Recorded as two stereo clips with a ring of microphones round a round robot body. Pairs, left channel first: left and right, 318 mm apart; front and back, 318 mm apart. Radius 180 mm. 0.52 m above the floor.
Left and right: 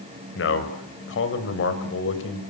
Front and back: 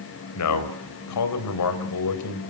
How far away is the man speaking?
About 3.5 m.